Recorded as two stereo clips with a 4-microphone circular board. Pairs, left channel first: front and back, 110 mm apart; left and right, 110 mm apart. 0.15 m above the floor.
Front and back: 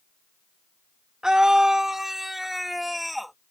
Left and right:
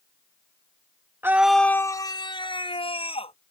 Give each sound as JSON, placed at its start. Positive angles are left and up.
{"t": 1.2, "sound": "a scream", "azimuth_deg": -105}